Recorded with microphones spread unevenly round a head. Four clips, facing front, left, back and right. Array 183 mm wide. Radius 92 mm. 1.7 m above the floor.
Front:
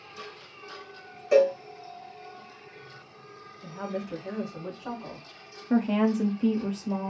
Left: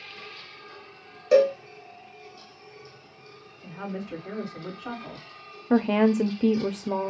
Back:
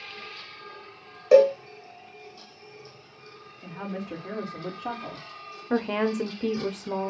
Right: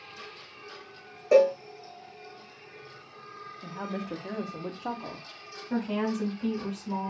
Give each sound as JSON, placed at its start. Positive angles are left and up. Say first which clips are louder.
{"t": 1.3, "sound": "a cowbell", "louder": "left 1 dB, back 4 dB", "azimuth_deg": -145, "distance_m": 1.7}
{"t": 3.6, "sound": "a woman speaking", "louder": "even, front 1 dB", "azimuth_deg": -125, "distance_m": 1.8}
{"t": 5.7, "sound": "a woman speaking", "louder": "left 9 dB, front 2 dB", "azimuth_deg": 110, "distance_m": 0.6}